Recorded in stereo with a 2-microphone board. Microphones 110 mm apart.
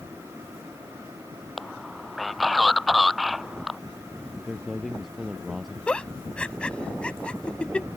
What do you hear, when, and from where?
1.6 s a man speaking: centre (ahead or behind)
4.5 s a man speaking: centre (ahead or behind)
5.9 s a giggle: 10° left (ahead or behind)